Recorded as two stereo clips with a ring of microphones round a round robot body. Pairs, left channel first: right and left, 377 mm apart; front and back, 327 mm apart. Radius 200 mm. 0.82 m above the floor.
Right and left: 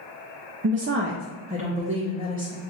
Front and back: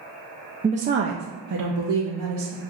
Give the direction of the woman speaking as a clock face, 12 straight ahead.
8 o'clock.